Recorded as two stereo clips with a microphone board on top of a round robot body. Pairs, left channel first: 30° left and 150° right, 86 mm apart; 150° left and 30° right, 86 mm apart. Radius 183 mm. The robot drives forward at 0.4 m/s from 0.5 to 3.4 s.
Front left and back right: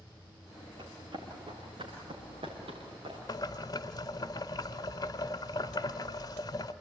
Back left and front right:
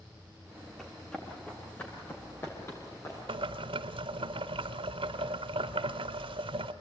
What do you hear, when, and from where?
0.8 s running footsteps: 130° right, 6.5 m; by 3.2 s 155° right, 8 m
3.3 s boiling: 15° right, 0.9 m; by 6.7 s 20° right, 0.8 m